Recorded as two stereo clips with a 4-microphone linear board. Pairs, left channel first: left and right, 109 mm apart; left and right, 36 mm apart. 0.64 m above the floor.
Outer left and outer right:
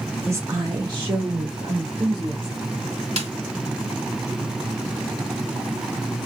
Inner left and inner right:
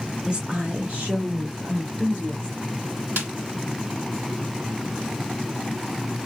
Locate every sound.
0.3 s a woman speaking: 20° right (ahead or behind), 0.6 m; by 2.6 s 45° right (ahead or behind), 2.5 m
3.2 s a snare drum: 75° right (ahead or behind), 1.3 m